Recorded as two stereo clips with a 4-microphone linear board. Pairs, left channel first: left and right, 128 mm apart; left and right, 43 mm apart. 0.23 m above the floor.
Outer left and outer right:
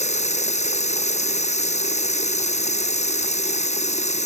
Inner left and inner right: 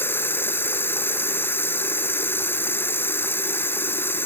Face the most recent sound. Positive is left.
turn(degrees=60)  # may be behind; listen again after turning